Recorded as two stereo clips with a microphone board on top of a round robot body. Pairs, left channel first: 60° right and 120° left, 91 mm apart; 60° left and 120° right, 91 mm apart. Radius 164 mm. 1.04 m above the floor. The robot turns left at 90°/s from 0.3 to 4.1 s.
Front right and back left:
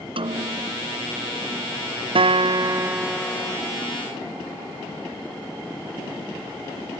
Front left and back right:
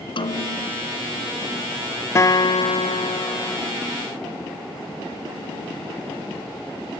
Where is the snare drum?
95° left; by 0.9 s 40° left.